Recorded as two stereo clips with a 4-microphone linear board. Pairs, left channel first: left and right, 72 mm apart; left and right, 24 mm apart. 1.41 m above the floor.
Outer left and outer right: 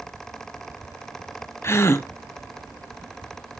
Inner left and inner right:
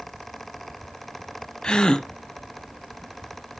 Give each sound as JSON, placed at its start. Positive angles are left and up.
{"t": 1.6, "sound": "a gasp", "side_deg": 40, "distance_m": 0.7}